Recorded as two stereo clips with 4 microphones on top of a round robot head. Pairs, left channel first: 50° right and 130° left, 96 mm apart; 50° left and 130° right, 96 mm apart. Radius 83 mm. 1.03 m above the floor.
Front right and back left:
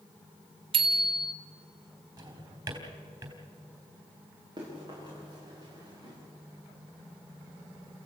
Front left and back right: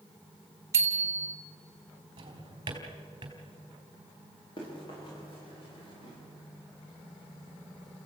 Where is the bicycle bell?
165° left, 2.5 m.